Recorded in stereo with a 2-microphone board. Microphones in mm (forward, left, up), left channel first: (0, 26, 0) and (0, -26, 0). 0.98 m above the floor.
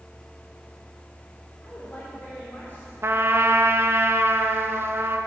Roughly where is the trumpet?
Right.